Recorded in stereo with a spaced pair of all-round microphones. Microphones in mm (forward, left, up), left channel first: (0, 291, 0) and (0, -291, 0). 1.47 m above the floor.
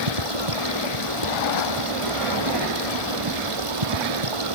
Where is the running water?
60° right (ahead or behind).